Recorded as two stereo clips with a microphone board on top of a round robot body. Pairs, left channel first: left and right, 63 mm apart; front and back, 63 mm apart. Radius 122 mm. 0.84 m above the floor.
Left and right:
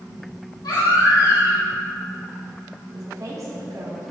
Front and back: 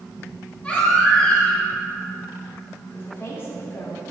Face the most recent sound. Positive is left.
turn(degrees=-55)